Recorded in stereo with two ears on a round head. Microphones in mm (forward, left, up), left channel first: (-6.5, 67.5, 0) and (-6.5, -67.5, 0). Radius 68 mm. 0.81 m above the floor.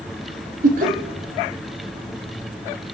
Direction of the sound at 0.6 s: 60° right (ahead or behind).